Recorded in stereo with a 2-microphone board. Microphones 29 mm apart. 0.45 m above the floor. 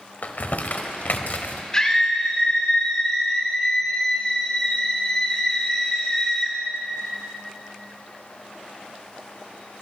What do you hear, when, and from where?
0.2 s crumpling: 70° left (ahead or behind), 0.6 m
1.7 s a scream: 25° left (ahead or behind), 1.1 m